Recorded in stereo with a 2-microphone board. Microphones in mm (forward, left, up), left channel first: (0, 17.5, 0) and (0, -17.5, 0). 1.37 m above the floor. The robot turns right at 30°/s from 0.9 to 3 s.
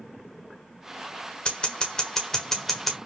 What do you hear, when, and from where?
1.4 s scissors: 35° left (ahead or behind), 1.3 m; by 3.0 s 5° left (ahead or behind), 1.3 m